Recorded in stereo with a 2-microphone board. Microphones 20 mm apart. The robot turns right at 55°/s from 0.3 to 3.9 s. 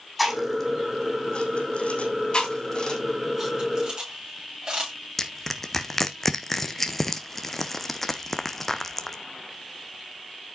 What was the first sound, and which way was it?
Chewing, 5° right (ahead or behind).